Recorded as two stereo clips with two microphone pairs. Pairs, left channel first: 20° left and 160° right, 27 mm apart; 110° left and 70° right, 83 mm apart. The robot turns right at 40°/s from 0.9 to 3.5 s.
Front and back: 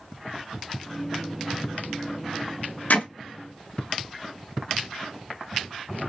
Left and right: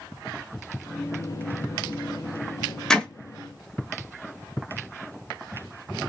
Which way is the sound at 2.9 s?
30° left.